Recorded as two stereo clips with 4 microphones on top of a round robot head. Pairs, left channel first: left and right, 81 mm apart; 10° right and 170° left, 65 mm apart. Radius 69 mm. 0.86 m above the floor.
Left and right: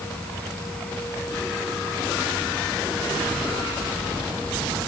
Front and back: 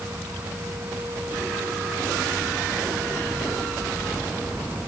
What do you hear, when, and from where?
Only background noise.